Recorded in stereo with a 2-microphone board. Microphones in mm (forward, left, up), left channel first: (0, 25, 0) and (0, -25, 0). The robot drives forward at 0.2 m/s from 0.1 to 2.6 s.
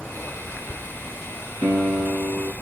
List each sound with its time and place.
1.6 s a piano: 75° right (ahead or behind), 0.5 m; by 2.5 s 60° right (ahead or behind), 0.6 m